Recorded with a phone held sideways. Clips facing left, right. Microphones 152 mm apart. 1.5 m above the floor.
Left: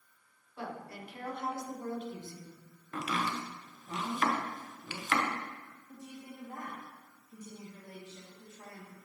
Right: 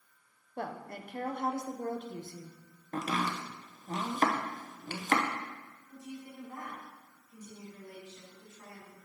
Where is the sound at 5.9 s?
40° left (ahead or behind), 2.5 m.